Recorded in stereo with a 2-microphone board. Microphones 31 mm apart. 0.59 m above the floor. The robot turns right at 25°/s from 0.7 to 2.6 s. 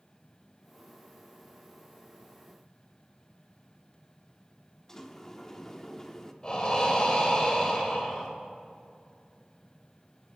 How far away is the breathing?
About 2.5 m.